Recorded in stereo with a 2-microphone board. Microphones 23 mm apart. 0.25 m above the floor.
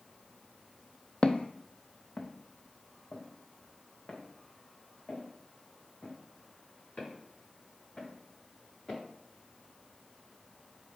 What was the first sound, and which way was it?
Footsteps, 45° left (ahead or behind).